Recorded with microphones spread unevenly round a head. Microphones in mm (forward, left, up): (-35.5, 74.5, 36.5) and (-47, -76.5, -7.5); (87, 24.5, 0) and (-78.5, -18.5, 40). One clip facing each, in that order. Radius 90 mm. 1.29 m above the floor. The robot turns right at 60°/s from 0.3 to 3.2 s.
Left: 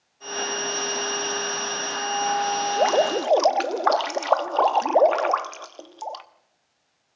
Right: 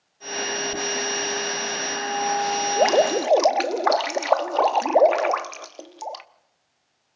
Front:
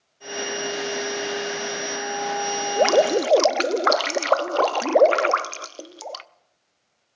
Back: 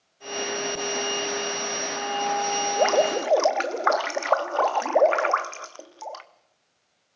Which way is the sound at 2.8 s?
15° right.